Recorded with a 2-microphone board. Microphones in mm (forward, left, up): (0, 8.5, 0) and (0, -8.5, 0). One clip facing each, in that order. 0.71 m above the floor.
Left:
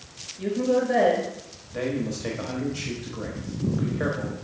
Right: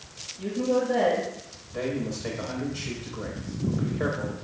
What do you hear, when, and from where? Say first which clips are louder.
0.4 s a woman speaking: left 2 dB; 25° left (ahead or behind), 3 m
1.7 s a man speaking: left 2 dB; 10° left (ahead or behind), 1.0 m